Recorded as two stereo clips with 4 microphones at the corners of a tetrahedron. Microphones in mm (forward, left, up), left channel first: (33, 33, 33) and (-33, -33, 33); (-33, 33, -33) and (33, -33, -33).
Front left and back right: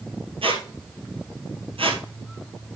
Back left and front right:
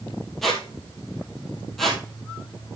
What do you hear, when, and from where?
0.4 s a squeak: 135° right, 1.7 m